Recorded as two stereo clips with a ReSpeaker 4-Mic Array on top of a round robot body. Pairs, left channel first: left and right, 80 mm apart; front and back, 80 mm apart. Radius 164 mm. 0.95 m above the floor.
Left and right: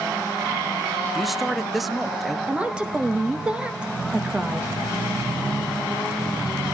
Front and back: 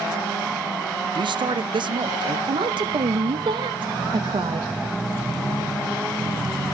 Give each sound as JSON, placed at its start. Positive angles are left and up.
{"t": 1.1, "sound": "a man speaking", "azimuth_deg": 180, "distance_m": 0.7}
{"t": 2.5, "sound": "a woman speaking", "azimuth_deg": -165, "distance_m": 1.0}